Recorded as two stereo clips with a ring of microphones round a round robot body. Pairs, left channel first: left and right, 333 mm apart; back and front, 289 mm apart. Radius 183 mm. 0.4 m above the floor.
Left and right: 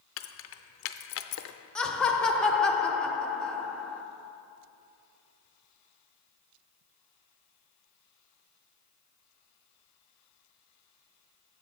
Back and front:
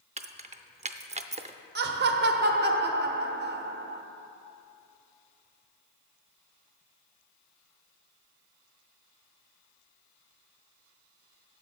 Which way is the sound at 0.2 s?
60° left.